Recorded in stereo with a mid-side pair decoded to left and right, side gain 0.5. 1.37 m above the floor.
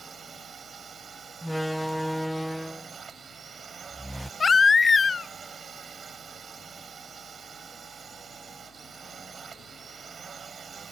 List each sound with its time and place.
0.0 s a drone: 40° right
1.4 s a door slam: 5° right
4.4 s a baby crying: 25° left